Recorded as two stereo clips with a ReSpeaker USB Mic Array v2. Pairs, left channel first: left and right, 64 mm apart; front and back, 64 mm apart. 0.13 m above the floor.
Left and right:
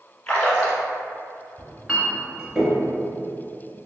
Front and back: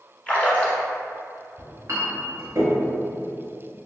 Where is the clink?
165° right, 1.1 m.